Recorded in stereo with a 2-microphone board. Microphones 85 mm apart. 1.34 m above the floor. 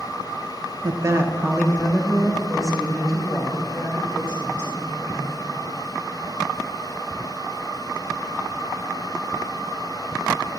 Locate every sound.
0.8 s a woman speaking: 50° right (ahead or behind), 0.9 m; by 5.4 s 15° left (ahead or behind), 5 m